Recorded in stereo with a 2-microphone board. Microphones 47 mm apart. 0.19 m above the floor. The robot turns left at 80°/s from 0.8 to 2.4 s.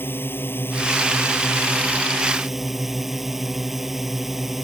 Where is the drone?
125° left; by 4.7 s 5° right.